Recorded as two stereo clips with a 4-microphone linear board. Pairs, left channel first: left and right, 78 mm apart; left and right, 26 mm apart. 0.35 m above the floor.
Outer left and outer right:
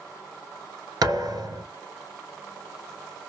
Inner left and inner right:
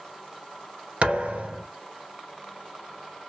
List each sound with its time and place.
1.0 s a thud: 55° right (ahead or behind), 1.3 m